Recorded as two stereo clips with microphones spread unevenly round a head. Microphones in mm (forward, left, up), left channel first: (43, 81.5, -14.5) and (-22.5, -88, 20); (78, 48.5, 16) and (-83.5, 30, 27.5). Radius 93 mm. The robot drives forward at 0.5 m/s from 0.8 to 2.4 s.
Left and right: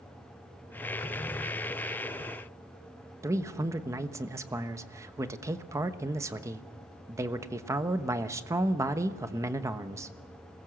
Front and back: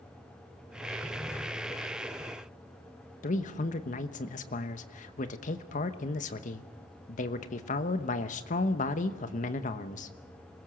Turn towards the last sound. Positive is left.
turn(degrees=-35)